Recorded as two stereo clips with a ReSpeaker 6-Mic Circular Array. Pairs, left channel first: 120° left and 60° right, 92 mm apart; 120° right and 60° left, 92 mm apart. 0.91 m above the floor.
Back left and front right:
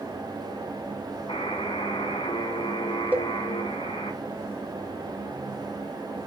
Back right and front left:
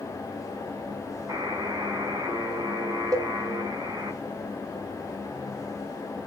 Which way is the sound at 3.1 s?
10° left.